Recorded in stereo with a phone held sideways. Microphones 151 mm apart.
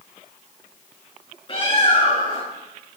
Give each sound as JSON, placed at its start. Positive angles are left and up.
{"t": 1.5, "sound": "a bird", "side_deg": 35, "distance_m": 8.0}